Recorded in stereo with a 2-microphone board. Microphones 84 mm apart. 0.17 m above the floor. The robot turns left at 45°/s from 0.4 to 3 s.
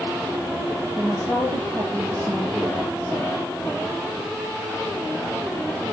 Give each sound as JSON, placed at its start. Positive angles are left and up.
{"t": 0.9, "sound": "a woman speaking", "azimuth_deg": -35, "distance_m": 7.5}